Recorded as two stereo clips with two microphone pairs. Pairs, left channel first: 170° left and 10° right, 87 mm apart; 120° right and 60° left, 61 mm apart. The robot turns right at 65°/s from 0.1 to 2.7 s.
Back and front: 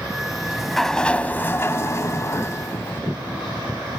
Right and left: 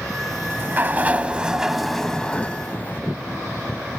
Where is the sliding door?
50° left, 0.6 m; by 3.0 s 155° right, 0.6 m.